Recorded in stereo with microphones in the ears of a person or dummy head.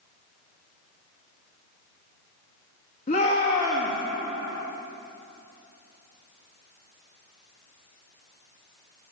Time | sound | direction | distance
3.1 | a shout | 40° left (ahead or behind) | 2 m